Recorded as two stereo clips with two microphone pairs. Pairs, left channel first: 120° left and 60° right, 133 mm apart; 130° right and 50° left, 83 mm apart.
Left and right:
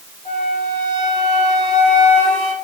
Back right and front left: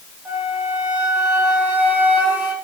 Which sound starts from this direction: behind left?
A flute, at 0.2 s.